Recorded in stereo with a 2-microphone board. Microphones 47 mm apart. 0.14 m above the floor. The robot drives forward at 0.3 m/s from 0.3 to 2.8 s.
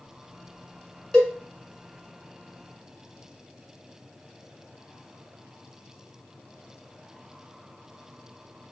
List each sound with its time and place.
1.1 s a cowbell: 15° left (ahead or behind), 1.3 m